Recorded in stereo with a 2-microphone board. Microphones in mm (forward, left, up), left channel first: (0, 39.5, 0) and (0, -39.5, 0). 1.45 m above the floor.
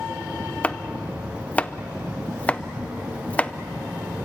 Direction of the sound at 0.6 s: 20° left (ahead or behind).